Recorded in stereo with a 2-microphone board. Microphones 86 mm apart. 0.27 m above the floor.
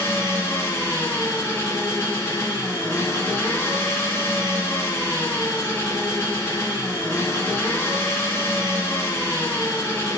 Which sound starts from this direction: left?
An engine running, at 0.0 s.